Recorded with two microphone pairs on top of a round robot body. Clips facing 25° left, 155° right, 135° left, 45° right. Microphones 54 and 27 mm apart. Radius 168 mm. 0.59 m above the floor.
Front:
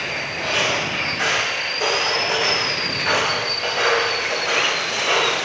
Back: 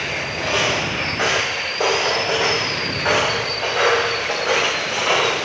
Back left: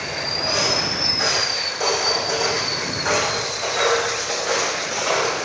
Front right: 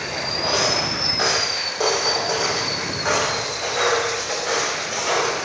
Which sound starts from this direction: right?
Footsteps, at 0.4 s.